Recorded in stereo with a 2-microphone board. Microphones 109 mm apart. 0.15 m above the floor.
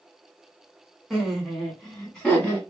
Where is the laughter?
Centre (ahead or behind), 1.5 m; by 2.6 s 10° left (ahead or behind), 1.4 m.